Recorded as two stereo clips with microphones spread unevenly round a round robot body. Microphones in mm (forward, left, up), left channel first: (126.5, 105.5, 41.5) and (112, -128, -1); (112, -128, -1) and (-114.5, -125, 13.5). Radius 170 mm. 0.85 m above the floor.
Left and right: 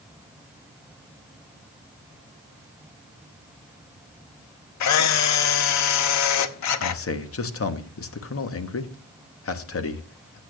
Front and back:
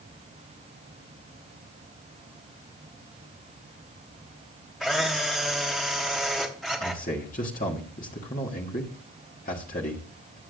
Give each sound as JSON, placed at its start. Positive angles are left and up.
{"t": 4.8, "sound": "a camera shutter", "azimuth_deg": 90, "distance_m": 0.7}
{"t": 6.8, "sound": "a man speaking", "azimuth_deg": 60, "distance_m": 1.2}